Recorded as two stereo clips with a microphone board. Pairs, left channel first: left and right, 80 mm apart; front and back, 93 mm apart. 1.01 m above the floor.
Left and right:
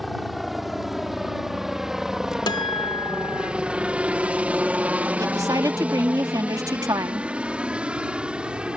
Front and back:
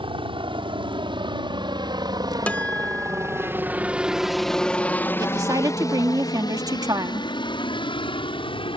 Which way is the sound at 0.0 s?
Straight behind.